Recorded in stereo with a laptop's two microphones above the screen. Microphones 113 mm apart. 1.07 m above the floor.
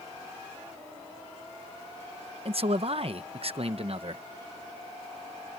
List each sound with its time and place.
2.5 s a man speaking: 55° right (ahead or behind)